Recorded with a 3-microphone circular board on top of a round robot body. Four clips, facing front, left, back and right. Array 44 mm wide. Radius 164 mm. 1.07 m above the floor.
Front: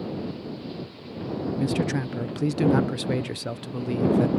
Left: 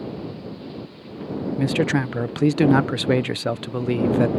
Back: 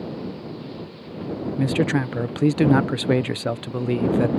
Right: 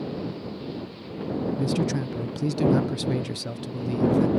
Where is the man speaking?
120° left.